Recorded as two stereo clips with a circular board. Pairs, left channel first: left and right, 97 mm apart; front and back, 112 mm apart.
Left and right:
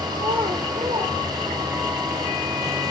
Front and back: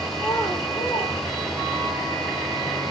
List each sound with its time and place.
0.1 s a child speaking: 70° right, 1.7 m; by 1.9 s 45° right, 4 m